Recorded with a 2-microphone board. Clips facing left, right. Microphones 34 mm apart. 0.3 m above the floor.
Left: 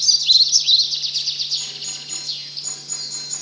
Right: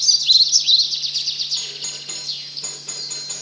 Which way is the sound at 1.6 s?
70° right (ahead or behind).